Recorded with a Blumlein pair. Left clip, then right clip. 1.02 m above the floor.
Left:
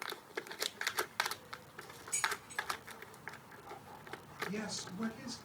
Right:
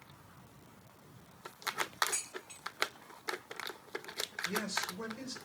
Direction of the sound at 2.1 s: 50° right.